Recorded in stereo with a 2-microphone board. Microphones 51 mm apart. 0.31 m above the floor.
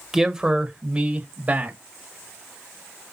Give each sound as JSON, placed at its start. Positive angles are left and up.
{"t": 0.1, "sound": "a man speaking", "side_deg": -5, "distance_m": 1.2}